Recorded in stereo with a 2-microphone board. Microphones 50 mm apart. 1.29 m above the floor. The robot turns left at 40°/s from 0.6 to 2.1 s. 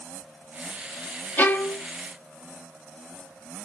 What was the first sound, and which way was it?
A violin, 40° left (ahead or behind).